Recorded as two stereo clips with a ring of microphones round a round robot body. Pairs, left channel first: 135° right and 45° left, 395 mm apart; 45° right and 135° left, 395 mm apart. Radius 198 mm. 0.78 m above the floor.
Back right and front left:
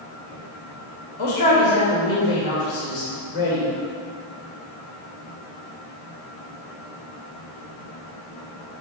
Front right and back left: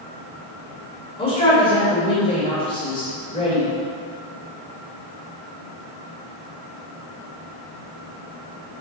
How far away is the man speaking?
About 3 m.